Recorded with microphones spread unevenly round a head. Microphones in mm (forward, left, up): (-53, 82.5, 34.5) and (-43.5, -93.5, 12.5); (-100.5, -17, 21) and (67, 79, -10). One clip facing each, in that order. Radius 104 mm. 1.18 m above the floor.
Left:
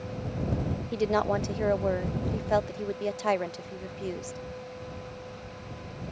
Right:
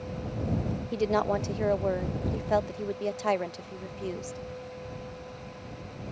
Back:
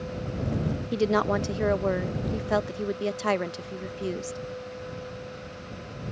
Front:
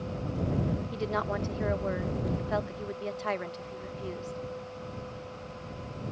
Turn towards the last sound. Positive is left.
turn(degrees=180)